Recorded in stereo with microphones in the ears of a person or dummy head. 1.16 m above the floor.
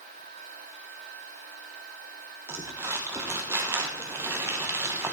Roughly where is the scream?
No scream in this recording.